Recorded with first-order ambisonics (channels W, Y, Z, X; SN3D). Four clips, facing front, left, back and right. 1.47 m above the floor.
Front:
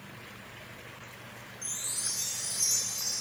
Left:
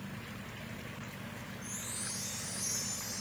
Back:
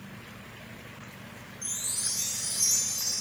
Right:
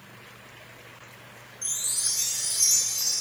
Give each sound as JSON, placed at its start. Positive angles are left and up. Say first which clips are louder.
{"t": 1.6, "sound": "a chime", "louder": "right 14 dB, back 2 dB", "azimuth_deg": -100, "distance_m": 3.0}